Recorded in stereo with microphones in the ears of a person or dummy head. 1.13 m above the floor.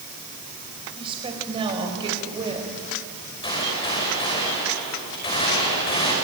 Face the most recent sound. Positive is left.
turn(degrees=25)  # may be behind; listen again after turning